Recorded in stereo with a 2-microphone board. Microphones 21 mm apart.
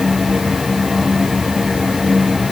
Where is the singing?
I don't hear singing.